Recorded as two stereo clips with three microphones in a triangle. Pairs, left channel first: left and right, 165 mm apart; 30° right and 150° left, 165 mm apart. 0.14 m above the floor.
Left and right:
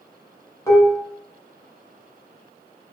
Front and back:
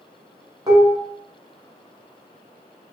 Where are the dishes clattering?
130° left, 0.7 m.